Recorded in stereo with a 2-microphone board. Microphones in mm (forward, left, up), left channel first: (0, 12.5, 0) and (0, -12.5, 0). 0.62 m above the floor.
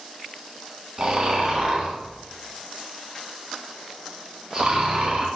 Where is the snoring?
30° right (ahead or behind), 2.5 m.